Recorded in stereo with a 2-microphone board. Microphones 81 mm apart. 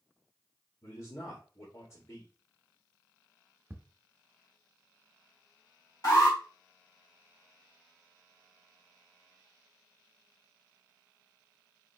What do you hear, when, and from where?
0.8 s a man speaking: 35° left (ahead or behind), 1.7 m
3.7 s ticking: 25° right (ahead or behind), 0.9 m
6.0 s an alarm: 45° left (ahead or behind), 3 m